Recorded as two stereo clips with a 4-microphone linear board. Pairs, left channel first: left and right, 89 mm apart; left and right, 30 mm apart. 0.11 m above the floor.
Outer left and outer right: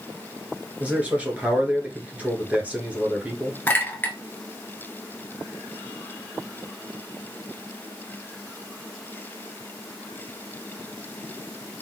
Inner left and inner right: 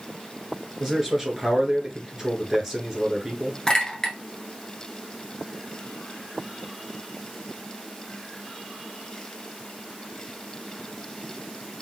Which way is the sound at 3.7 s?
25° left (ahead or behind).